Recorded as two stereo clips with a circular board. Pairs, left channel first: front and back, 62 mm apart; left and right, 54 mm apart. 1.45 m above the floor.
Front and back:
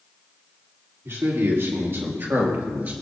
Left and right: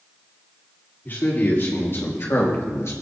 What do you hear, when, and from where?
1.1 s a man speaking: 140° left, 4 m; by 2.9 s 115° left, 2.5 m